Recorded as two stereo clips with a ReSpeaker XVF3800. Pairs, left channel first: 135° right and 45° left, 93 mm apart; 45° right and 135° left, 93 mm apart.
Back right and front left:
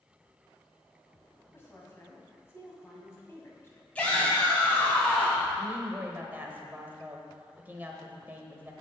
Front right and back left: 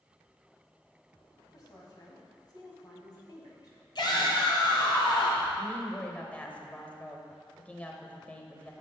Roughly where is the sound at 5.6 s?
Ahead.